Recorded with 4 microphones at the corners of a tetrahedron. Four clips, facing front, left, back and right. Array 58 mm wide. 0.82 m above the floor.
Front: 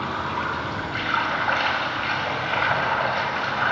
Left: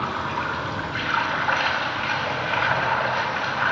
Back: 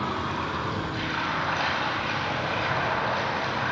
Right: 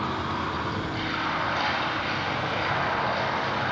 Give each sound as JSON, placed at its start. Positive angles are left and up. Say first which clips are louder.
{"t": 0.0, "sound": "running water", "louder": "left 3 dB, front 3 dB", "azimuth_deg": 35, "distance_m": 4.5}